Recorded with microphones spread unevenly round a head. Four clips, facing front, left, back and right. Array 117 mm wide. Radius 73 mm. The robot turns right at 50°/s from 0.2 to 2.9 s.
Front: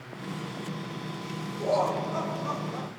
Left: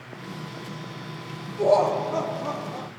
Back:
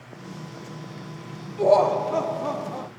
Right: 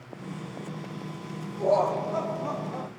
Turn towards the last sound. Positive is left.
turn(degrees=-155)